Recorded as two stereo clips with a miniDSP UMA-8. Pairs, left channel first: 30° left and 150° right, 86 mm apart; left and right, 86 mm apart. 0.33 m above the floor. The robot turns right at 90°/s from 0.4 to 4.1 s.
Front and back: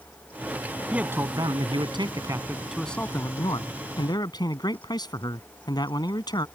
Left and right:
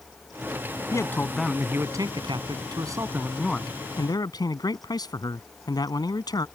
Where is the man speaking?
130° left; by 6.5 s 60° left.